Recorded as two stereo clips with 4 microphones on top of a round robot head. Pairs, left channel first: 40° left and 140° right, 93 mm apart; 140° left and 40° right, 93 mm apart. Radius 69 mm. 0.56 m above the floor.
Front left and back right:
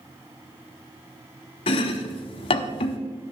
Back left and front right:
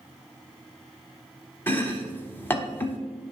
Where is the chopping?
70° left, 0.8 m.